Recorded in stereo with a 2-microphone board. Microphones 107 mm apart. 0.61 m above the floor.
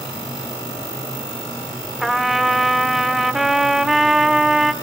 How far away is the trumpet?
About 1.0 m.